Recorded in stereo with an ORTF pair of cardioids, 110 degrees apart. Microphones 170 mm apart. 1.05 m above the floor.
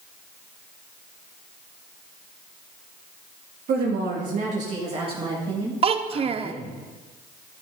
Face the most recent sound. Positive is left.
turn(degrees=-35)